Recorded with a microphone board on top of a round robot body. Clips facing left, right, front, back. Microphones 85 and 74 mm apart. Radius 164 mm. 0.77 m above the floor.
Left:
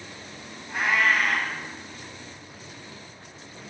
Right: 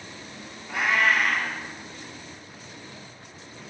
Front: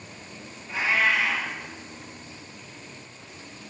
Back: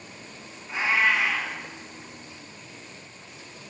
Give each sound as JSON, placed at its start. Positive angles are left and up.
{"t": 0.7, "sound": "a cat meowing", "azimuth_deg": -105, "distance_m": 1.2}